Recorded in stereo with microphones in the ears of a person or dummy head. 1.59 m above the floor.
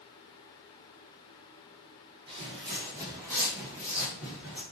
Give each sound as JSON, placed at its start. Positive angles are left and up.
{"t": 2.3, "sound": "footsteps", "side_deg": -30, "distance_m": 2.0}